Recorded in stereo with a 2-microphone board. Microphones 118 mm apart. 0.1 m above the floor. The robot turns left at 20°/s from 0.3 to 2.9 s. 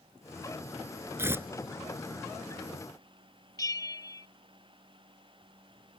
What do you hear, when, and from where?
1.2 s tearing paper: 20° right (ahead or behind)
3.6 s a bell: 30° left (ahead or behind)